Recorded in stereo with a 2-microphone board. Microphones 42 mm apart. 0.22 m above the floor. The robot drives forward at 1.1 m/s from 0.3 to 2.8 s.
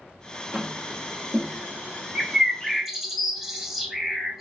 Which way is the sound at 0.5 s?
30° right (ahead or behind).